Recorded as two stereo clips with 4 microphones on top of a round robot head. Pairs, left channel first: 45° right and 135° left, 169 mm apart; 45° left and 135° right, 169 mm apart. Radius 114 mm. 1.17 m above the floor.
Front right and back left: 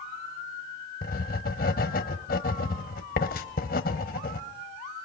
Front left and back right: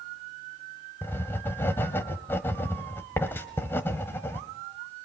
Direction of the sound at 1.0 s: 30° right.